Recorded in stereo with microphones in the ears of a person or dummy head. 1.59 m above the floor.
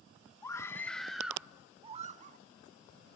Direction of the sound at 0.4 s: 15° left (ahead or behind).